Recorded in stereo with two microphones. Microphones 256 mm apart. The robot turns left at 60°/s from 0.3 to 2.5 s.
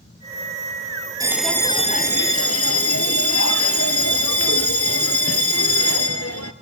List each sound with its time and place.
1.2 s a bell: 165° right, 0.9 m; by 6.5 s 115° left, 0.9 m